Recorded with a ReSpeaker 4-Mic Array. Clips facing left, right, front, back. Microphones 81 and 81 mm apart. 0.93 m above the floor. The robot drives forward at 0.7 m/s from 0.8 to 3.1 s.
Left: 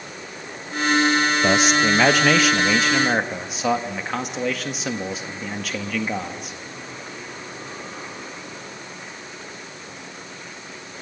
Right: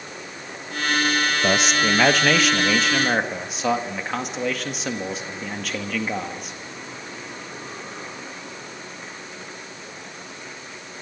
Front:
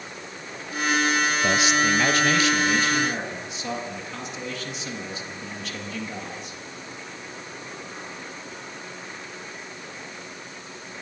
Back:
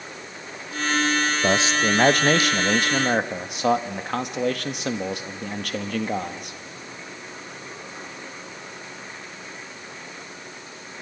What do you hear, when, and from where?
1.4 s a man speaking: 175° left, 0.9 m; by 6.6 s straight behind, 1.7 m